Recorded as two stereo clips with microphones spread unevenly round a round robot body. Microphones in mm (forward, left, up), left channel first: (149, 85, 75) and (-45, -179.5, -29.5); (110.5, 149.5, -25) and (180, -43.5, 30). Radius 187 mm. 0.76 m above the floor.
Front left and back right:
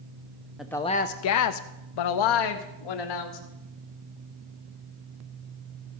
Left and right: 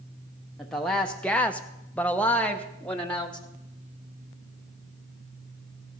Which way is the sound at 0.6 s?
175° left.